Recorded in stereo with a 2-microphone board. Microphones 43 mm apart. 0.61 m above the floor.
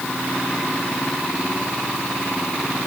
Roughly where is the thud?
I don't hear a thud.